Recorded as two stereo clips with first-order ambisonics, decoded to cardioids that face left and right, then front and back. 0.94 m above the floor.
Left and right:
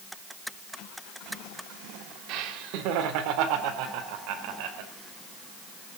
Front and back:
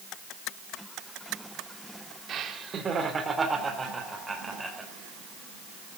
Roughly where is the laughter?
Behind right.